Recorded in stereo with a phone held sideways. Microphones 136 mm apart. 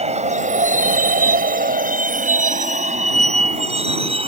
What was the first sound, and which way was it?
A vehicle, 50° right (ahead or behind).